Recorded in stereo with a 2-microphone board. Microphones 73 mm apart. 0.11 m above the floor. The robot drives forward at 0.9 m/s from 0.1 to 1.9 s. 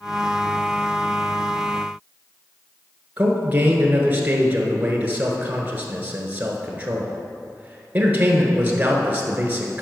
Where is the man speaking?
20° right (ahead or behind), 1.3 m.